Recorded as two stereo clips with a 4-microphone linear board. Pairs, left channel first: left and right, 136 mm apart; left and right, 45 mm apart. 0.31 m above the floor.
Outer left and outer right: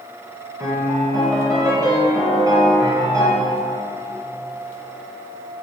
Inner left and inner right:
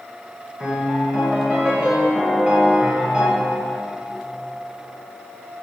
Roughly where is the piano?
Right.